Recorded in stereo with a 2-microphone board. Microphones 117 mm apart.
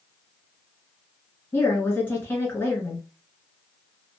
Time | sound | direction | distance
1.5 | a woman speaking | 20° left (ahead or behind) | 1.7 m